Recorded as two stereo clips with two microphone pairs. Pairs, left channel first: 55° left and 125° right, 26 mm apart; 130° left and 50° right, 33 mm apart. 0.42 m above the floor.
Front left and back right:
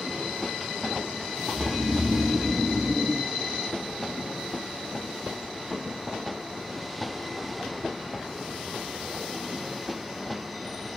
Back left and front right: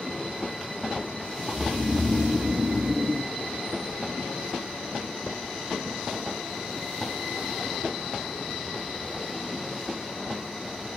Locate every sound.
1.5 s snoring: 50° right, 0.6 m